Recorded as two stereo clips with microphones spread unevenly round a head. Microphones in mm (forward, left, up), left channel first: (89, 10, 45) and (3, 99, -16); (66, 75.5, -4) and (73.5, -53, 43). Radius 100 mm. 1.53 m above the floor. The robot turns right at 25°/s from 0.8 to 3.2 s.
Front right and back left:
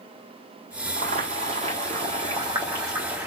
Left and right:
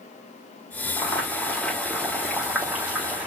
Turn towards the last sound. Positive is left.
turn(degrees=-115)